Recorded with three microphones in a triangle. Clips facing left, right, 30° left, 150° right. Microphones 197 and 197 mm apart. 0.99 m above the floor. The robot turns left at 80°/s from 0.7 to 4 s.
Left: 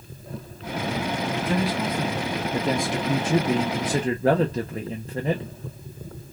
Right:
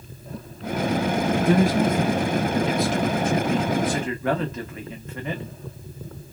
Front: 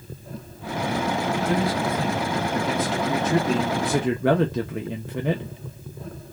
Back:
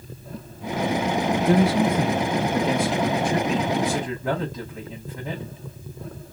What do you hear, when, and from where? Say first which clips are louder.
1.4 s a man speaking: right 7 dB, back 8 dB; 110° right, 0.8 m; by 5.5 s 35° left, 0.8 m